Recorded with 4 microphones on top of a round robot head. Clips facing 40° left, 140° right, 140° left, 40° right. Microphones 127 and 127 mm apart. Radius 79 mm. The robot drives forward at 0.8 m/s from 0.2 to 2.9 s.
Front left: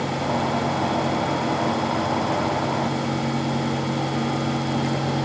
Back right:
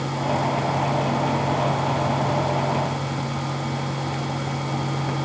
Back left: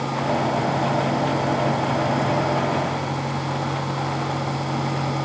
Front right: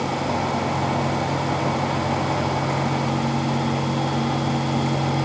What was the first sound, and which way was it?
Only background noise.